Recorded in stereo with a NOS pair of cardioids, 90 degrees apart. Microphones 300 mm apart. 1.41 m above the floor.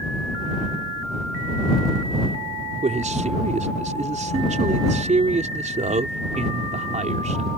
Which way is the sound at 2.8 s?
25° right.